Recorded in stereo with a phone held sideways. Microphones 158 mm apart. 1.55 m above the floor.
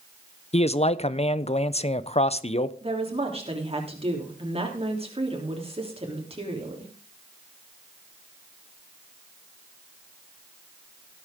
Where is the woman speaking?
40° right (ahead or behind), 3 m.